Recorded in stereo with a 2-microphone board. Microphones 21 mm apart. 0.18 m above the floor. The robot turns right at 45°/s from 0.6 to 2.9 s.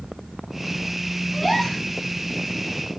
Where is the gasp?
5° right (ahead or behind), 1.5 m; by 1.9 s 10° left (ahead or behind), 1.5 m.